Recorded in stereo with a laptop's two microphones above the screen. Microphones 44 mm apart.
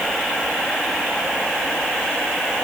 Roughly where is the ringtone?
No ringtone in this recording.